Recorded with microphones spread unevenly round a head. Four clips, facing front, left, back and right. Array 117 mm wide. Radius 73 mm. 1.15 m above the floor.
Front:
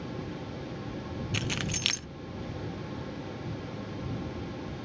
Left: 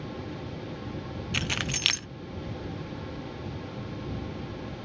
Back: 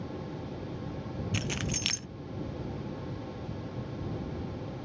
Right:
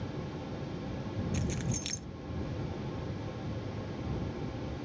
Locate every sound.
1.3 s keys jangling: 70° left